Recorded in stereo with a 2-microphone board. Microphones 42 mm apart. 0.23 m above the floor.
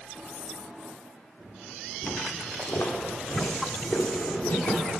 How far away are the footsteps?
About 1.5 m.